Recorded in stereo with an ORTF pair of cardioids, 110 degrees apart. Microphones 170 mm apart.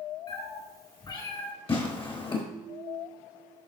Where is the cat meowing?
30° left, 4 m.